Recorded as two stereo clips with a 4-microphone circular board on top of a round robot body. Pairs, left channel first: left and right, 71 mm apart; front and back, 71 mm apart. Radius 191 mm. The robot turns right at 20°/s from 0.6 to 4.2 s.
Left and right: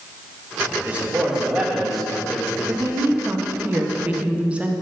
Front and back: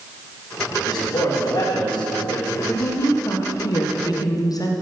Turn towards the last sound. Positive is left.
turn(degrees=-20)